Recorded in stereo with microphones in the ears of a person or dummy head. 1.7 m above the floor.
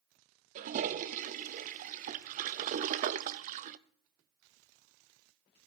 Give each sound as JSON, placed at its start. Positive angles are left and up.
{"t": 0.6, "sound": "a toilet flushing", "side_deg": -45, "distance_m": 0.6}